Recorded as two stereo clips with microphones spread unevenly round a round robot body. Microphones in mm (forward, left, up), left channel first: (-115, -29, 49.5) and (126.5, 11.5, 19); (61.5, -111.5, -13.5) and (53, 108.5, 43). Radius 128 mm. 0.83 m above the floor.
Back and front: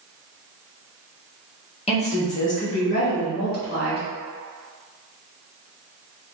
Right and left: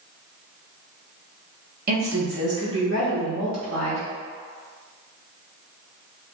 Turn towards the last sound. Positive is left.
turn(degrees=135)